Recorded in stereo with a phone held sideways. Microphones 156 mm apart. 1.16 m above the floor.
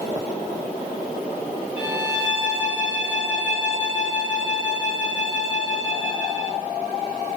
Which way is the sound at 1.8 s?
30° left (ahead or behind).